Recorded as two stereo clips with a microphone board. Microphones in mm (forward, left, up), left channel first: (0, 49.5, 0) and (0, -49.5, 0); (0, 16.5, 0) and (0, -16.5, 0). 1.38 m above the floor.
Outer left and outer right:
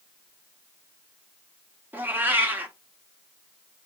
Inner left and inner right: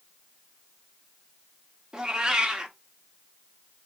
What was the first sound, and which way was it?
A cat meowing, 20° right (ahead or behind).